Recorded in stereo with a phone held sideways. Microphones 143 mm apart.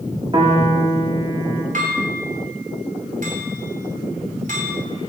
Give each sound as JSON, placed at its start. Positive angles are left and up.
{"t": 0.3, "sound": "a piano", "side_deg": -35, "distance_m": 1.9}
{"t": 1.7, "sound": "dishes clattering", "side_deg": -70, "distance_m": 3.0}